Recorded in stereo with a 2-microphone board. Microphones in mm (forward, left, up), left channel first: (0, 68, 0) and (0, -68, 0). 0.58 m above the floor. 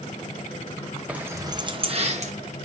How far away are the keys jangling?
About 0.6 m.